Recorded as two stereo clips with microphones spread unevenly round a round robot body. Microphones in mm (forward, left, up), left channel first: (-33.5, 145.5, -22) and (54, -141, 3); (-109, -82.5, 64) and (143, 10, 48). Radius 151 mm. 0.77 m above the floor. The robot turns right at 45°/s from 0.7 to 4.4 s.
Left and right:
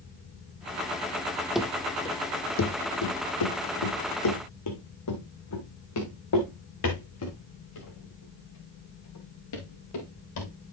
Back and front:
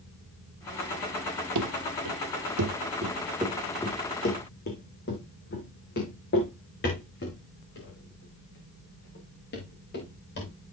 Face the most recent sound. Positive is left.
turn(degrees=145)